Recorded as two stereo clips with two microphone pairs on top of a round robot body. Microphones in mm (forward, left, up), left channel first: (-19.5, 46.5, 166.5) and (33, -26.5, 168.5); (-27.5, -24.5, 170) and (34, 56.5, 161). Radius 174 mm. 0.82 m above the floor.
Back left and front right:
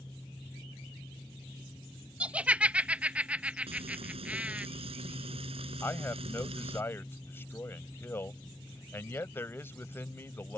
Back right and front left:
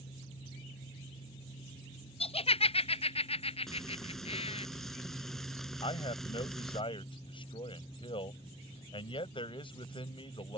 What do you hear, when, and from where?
2.2 s laughter: 130° right
3.7 s frying: 40° right
5.8 s a man speaking: 165° right